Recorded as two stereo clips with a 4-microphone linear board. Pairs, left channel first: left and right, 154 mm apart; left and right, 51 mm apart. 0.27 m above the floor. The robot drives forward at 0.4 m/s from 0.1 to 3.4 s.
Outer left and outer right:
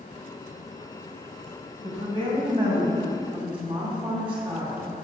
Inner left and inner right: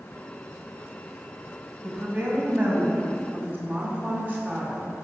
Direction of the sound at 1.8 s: 40° right (ahead or behind).